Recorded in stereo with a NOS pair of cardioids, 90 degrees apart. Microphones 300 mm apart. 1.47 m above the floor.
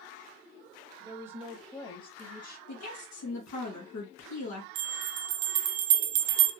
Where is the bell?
65° right, 0.6 m.